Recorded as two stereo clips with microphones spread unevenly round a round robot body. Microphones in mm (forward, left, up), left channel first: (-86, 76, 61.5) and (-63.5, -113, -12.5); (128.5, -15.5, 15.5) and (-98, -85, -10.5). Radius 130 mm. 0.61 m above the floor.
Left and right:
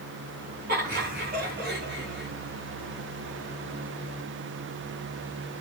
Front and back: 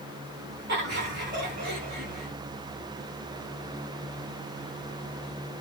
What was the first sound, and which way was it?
Laughter, 115° right.